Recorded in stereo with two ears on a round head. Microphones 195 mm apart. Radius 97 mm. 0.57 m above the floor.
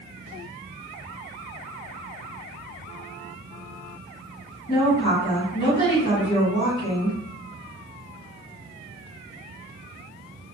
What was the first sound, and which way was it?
A woman speaking, 25° left (ahead or behind).